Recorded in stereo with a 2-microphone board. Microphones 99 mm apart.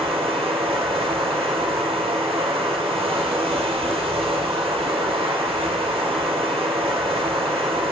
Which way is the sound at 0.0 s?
85° right.